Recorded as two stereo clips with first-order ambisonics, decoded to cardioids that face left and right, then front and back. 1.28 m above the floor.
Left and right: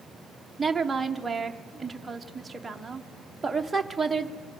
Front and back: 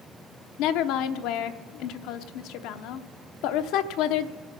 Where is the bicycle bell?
I don't hear a bicycle bell.